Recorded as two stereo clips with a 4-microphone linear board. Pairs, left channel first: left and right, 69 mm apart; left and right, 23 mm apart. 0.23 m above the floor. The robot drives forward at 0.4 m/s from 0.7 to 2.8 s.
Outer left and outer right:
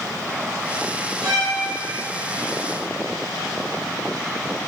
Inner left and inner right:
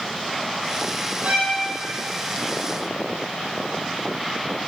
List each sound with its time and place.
1.2 s a violin: 60° right (ahead or behind), 3 m; by 1.5 s 65° right (ahead or behind), 3 m